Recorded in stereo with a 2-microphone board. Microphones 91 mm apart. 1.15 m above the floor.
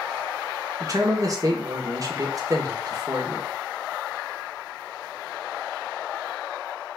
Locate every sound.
0.8 s a man speaking: 40° right (ahead or behind), 0.8 m